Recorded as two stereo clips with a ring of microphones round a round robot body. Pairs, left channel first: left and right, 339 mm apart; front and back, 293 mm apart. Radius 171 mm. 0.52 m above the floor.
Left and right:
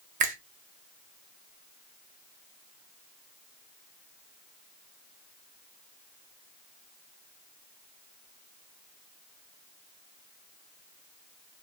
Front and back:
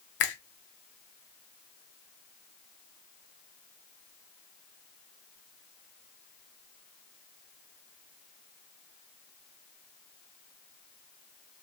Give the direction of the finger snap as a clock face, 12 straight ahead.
1 o'clock.